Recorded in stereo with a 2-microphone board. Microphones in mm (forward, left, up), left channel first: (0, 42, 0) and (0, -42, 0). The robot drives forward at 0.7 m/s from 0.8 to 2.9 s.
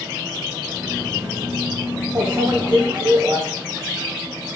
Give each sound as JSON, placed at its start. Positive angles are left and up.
{"t": 2.1, "sound": "a microwave", "side_deg": -50, "distance_m": 1.3}